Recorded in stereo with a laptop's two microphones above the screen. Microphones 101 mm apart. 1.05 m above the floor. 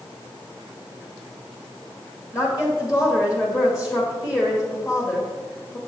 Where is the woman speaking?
35° left (ahead or behind), 1.5 m.